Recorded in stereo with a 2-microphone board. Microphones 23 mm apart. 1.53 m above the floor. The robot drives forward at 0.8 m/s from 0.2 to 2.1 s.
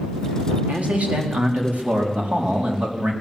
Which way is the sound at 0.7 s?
85° right.